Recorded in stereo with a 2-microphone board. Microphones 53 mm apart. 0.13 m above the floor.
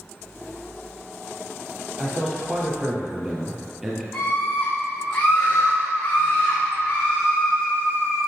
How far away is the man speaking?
About 2.5 m.